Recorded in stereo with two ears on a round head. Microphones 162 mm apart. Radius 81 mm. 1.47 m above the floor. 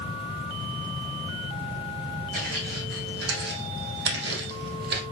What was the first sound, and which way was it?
Footsteps, 55° right (ahead or behind).